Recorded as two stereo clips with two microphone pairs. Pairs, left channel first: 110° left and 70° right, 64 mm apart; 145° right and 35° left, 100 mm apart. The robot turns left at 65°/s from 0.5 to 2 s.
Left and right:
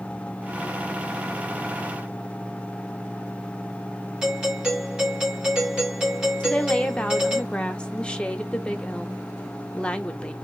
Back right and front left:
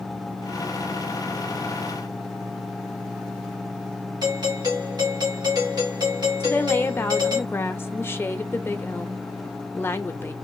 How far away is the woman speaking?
About 0.7 m.